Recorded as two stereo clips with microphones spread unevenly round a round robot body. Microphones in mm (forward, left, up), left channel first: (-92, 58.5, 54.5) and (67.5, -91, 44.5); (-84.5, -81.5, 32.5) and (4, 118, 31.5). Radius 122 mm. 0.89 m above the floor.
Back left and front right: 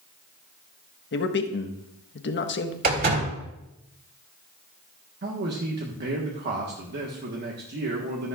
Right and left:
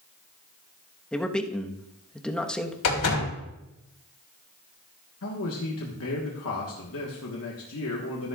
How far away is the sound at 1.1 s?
About 1.2 m.